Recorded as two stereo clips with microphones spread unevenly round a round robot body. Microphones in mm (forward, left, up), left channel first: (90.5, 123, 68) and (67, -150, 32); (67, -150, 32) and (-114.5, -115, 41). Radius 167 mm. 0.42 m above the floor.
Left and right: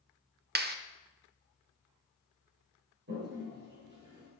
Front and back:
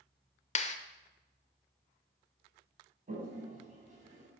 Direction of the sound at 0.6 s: 55° right.